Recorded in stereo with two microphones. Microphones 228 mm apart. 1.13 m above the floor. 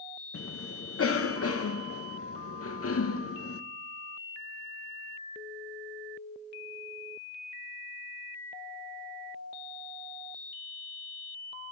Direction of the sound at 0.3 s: 80° left.